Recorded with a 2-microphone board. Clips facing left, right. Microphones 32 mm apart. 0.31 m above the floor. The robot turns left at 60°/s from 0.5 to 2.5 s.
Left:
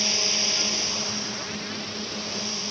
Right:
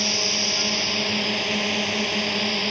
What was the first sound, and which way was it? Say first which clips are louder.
A drone: right 2 dB; 10° right.